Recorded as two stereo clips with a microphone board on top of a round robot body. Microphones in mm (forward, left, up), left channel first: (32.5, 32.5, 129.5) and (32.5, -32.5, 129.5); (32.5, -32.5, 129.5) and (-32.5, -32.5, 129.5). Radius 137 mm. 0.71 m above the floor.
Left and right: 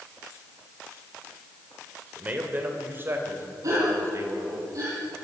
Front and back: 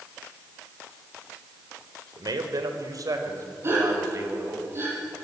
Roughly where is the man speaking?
Behind.